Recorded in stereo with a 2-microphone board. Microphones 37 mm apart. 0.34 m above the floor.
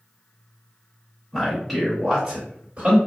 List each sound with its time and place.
1.3 s a man speaking: 10° left (ahead or behind), 1.6 m; by 3.0 s 35° right (ahead or behind), 1.9 m